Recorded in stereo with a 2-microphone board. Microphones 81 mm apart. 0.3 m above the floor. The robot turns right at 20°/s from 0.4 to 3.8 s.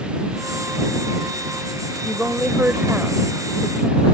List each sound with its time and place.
2.0 s a woman speaking: 15° right (ahead or behind); by 4.0 s 20° right (ahead or behind)